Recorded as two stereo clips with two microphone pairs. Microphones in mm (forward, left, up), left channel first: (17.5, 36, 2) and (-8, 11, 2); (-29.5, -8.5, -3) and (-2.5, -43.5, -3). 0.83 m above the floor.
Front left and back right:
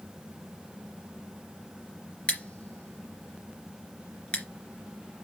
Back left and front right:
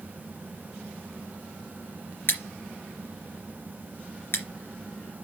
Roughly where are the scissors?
Left.